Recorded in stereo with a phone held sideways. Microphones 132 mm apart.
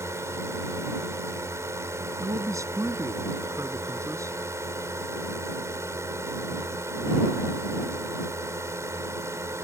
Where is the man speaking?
25° right (ahead or behind).